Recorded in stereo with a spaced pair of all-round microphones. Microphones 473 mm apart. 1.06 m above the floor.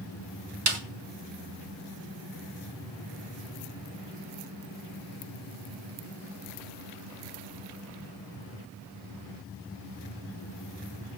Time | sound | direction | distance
0.7 | a snare drum | 85° right | 1.6 m